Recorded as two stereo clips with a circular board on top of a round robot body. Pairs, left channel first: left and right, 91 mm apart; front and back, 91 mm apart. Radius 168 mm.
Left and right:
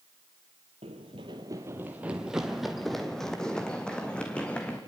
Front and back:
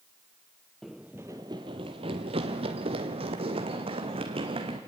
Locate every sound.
0.8 s running footsteps: 90° right, 0.6 m; by 4.8 s 170° left, 2 m